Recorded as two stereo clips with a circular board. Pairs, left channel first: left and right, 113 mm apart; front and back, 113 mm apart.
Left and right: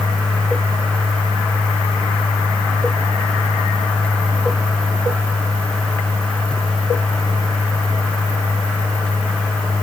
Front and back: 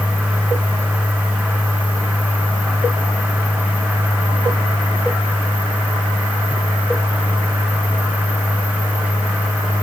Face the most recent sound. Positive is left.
No sound to turn to.